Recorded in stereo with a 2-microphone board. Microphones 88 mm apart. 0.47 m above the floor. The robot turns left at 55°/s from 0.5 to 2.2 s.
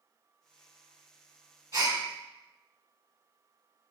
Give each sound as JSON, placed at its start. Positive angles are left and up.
{"t": 1.7, "sound": "a gasp", "side_deg": -45, "distance_m": 1.2}